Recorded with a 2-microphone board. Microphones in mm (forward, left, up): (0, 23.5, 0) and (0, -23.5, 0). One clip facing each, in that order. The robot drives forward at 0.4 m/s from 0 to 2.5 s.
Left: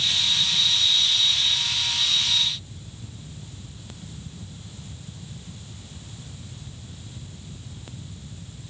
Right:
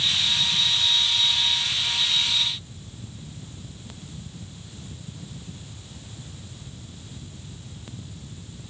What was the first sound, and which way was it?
Only background noise.